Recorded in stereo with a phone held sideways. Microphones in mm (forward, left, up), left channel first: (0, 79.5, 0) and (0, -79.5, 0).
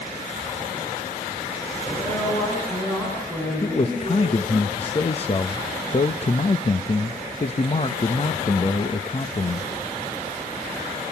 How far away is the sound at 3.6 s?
About 0.9 m.